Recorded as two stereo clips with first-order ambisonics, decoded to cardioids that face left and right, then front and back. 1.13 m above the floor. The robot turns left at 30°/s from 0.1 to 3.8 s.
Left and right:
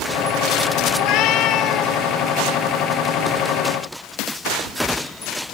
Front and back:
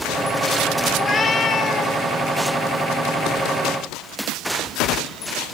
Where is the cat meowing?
70° left, 1.3 m; by 2.0 s 40° left, 1.3 m.